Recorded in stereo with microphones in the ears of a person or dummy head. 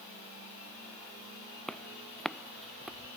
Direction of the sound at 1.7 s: 5° left (ahead or behind).